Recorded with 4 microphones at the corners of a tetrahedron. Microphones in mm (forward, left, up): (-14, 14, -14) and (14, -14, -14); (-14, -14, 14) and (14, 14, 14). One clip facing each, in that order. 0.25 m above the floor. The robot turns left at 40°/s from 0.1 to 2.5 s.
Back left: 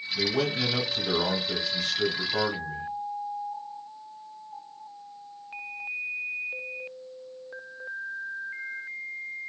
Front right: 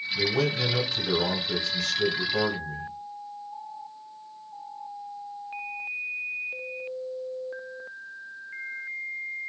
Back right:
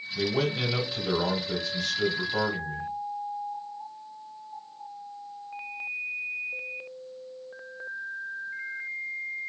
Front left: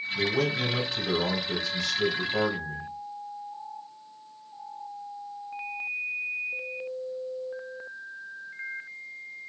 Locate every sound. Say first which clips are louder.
0.1 s a man speaking: front right 1 dB, even; 135° right, 1.1 m; by 2.9 s 130° left, 1.1 m